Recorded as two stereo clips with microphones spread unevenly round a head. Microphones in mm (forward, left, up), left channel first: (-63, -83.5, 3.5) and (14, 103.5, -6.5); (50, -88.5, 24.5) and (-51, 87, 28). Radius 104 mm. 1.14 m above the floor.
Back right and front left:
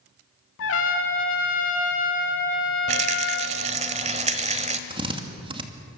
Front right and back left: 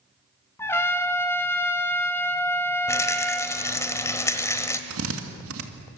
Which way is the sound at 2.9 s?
15° left.